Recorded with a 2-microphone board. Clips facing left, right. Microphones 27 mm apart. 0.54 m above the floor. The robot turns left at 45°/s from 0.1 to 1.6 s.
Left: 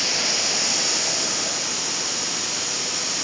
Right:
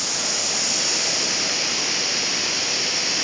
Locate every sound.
0.0 s running water: 30° left, 3 m; by 3.2 s 40° right, 3 m